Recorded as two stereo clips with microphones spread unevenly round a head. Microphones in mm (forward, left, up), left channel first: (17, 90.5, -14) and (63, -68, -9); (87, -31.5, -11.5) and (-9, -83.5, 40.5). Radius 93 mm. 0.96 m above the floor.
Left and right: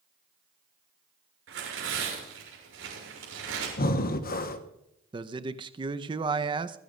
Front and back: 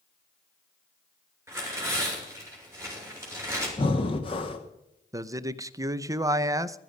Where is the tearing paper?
85° right, 7.5 m.